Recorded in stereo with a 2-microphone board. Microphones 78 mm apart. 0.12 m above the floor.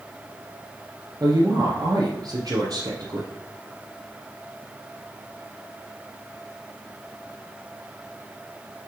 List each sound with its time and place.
1.2 s a woman speaking: 50° right (ahead or behind), 2.5 m